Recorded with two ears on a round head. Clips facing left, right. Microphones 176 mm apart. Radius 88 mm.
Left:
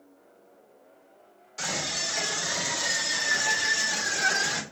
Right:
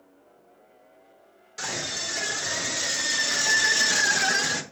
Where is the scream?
20° right (ahead or behind), 3 m; by 4.6 s 50° right (ahead or behind), 1.2 m.